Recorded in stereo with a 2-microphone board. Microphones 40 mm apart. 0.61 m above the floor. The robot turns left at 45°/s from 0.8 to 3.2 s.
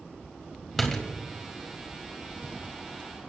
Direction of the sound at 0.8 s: 5° left (ahead or behind).